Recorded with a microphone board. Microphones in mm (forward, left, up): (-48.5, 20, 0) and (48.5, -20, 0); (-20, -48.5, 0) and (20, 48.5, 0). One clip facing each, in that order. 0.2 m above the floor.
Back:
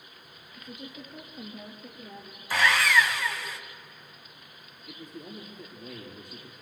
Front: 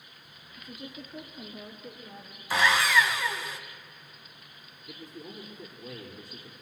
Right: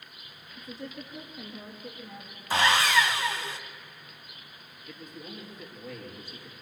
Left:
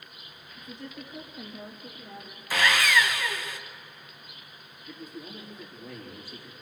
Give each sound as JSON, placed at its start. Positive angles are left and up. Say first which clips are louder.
{"t": 0.6, "sound": "a woman speaking", "louder": "even, right 1 dB", "azimuth_deg": 160, "distance_m": 3.5}
{"t": 2.5, "sound": "sawing", "louder": "even, right 1 dB", "azimuth_deg": -110, "distance_m": 1.6}
{"t": 4.9, "sound": "a man speaking", "louder": "back 1 dB, left 2 dB", "azimuth_deg": 145, "distance_m": 4.5}